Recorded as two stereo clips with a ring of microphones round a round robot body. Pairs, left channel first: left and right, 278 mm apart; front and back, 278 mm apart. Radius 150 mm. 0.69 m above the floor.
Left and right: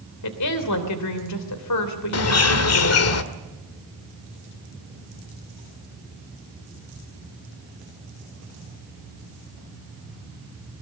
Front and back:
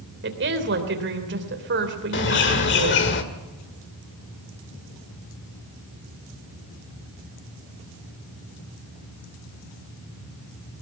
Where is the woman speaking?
125° left, 3 m.